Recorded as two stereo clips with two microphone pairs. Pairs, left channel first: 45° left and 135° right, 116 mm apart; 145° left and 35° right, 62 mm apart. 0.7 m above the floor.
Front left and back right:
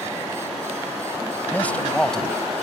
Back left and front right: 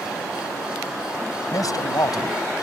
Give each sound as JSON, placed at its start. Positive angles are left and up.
{"t": 1.5, "sound": "a man speaking", "azimuth_deg": 125}